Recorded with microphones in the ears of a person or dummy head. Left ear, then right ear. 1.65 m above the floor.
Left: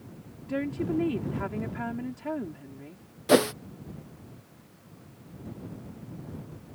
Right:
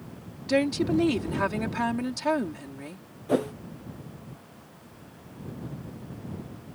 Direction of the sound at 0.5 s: 85° right.